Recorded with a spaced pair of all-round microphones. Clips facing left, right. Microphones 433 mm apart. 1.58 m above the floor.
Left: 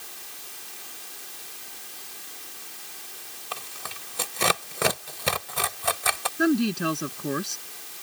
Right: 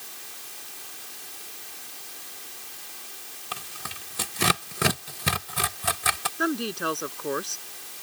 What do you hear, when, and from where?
3.5 s tearing paper: 30° right (ahead or behind)
6.4 s a woman speaking: 40° left (ahead or behind)